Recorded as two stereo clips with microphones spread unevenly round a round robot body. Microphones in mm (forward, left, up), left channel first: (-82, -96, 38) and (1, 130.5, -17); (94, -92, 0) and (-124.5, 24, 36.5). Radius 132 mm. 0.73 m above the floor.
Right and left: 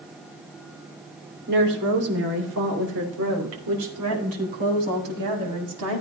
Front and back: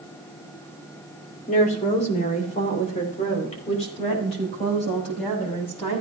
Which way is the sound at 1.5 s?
30° left.